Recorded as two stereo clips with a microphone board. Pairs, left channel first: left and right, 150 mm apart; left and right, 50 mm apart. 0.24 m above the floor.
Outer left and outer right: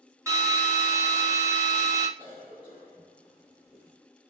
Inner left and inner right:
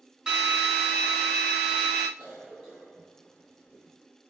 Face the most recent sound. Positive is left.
turn(degrees=-10)  # may be behind; listen again after turning